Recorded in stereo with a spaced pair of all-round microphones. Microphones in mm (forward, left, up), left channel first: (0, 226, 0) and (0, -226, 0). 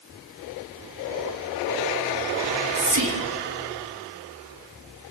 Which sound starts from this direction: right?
Whispering, at 2.4 s.